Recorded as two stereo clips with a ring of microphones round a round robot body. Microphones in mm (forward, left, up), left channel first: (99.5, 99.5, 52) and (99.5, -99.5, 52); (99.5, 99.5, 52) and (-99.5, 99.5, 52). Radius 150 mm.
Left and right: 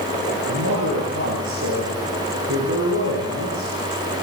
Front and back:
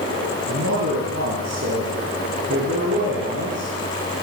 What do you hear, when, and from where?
0.5 s a man speaking: 130° right, 8 m